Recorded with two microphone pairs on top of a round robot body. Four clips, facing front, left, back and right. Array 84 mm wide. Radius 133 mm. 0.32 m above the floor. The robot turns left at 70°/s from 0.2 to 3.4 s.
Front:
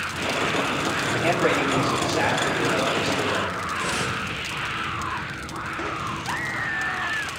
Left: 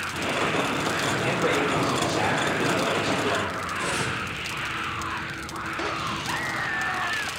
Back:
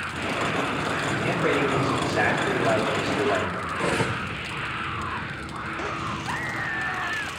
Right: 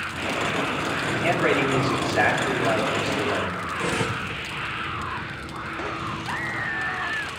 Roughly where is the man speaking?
Ahead right.